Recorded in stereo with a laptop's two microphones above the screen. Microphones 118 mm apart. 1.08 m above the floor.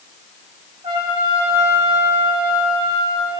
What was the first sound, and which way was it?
A trumpet, 50° right (ahead or behind).